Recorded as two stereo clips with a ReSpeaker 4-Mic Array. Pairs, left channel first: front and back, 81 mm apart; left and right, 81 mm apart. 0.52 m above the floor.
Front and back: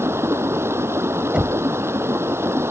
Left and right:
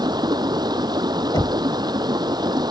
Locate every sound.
0.0 s running water: 120° right
1.3 s knocking: 105° left